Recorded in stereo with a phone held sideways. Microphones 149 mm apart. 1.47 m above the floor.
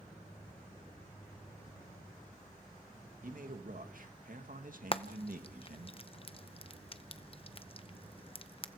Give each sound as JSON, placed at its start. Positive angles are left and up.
{"t": 3.2, "sound": "a man speaking", "side_deg": -65, "distance_m": 1.8}
{"t": 4.9, "sound": "frying", "side_deg": 40, "distance_m": 0.8}